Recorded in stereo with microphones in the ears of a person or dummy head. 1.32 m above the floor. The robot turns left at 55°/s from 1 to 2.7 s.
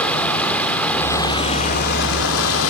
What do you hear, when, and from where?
0.0 s running water: 170° left, 2.5 m; by 2.7 s 75° left, 2.5 m